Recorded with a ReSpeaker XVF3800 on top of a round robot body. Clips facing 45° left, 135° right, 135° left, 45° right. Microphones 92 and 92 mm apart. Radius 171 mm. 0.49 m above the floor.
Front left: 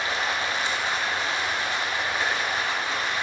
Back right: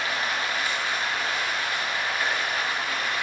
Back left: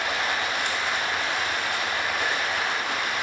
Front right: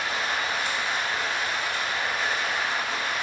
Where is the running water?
110° left, 0.9 m.